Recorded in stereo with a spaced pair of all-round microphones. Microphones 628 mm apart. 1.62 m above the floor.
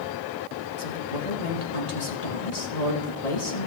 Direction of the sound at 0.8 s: 75° left (ahead or behind).